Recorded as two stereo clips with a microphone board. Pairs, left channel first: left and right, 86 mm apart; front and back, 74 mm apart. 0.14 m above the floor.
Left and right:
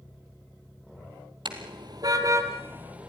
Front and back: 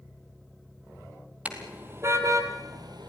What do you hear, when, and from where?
1.4 s a car horn: 110° right, 2.5 m; by 3.1 s 165° right, 2.5 m